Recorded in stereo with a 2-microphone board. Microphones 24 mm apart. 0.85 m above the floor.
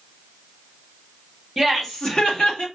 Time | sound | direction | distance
1.6 | laughter | 5° left (ahead or behind) | 1.0 m